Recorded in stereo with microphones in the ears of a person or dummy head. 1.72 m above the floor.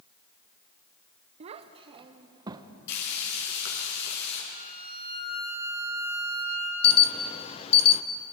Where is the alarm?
30° left (ahead or behind), 1.0 m.